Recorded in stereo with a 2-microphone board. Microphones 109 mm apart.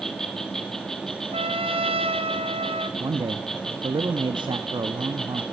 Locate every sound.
0.0 s an insect: 5° left (ahead or behind), 1.8 m
1.3 s a trumpet: 60° right (ahead or behind), 0.9 m
3.0 s a man speaking: 45° right (ahead or behind), 0.8 m